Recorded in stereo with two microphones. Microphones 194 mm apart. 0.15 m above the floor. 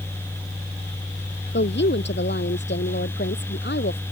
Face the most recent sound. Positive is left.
turn(degrees=65)  # may be behind; listen again after turning